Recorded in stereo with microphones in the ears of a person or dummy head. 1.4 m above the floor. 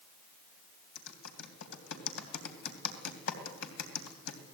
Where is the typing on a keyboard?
75° left (ahead or behind), 3 m.